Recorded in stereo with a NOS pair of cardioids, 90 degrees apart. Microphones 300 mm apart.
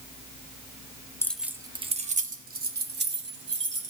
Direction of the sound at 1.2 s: 10° left.